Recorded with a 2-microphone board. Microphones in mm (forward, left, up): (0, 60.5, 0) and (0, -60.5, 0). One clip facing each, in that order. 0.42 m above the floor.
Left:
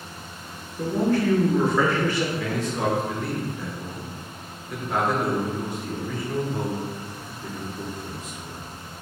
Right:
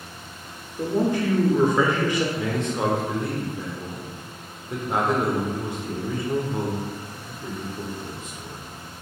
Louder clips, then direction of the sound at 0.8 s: Even; 15° right (ahead or behind).